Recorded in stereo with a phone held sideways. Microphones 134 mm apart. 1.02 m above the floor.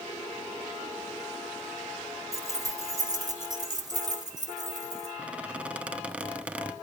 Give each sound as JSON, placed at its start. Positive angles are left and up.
{"t": 2.3, "sound": "keys jangling", "side_deg": -25, "distance_m": 1.4}
{"t": 5.2, "sound": "a squeak", "side_deg": -10, "distance_m": 0.9}